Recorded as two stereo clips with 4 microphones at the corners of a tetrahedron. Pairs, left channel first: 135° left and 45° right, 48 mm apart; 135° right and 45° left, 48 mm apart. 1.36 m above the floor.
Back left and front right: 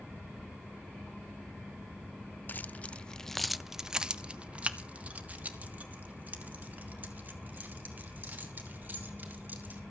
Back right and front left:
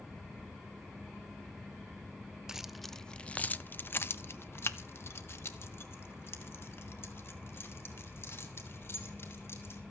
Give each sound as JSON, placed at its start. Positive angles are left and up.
{"t": 2.5, "sound": "keys jangling", "azimuth_deg": 120, "distance_m": 0.6}